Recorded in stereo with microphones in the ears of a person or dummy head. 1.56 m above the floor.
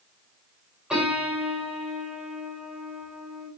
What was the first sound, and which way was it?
A piano, 5° right (ahead or behind).